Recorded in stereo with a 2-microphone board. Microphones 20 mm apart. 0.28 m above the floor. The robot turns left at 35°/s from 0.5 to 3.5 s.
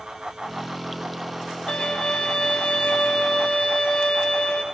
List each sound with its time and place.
1.7 s a violin: 120° left, 0.6 m; by 4.6 s 60° left, 0.6 m